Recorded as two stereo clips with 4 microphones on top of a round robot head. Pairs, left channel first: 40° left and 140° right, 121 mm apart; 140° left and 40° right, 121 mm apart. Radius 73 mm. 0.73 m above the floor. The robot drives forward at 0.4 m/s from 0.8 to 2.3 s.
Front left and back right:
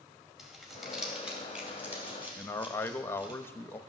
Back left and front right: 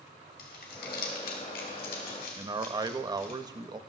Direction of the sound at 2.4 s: 15° right.